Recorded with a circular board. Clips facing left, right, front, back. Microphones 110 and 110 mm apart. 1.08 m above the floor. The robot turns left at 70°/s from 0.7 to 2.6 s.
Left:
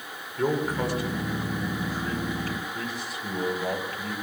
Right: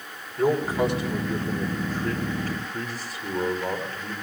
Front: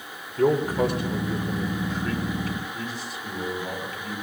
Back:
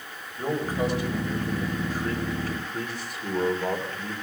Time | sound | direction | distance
0.4 | a man speaking | 10° right | 3.5 m